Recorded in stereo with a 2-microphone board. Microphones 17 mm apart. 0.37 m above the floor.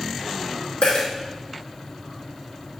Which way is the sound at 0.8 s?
90° left.